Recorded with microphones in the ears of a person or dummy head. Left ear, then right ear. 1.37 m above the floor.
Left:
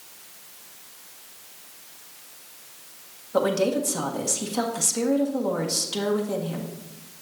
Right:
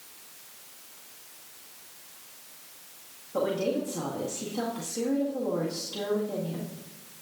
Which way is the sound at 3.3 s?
80° left.